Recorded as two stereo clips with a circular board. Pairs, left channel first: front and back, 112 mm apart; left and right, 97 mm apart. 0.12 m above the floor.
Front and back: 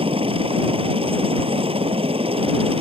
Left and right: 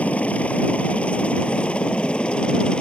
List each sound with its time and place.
0.0 s a helicopter: 165° left; by 2.8 s 170° left